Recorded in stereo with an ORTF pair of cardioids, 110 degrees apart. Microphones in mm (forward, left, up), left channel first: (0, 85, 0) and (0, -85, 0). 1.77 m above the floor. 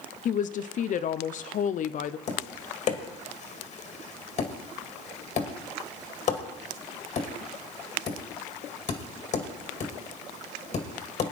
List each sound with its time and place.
0.2 s a woman speaking: 50° left, 0.8 m
2.3 s tapping: 45° left, 2 m